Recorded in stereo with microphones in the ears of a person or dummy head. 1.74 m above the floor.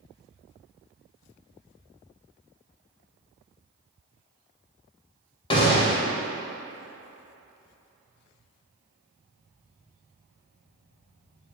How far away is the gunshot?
About 0.9 m.